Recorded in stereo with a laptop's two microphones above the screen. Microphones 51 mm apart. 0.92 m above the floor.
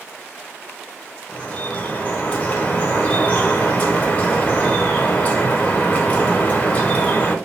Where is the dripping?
35° left (ahead or behind), 1.5 m.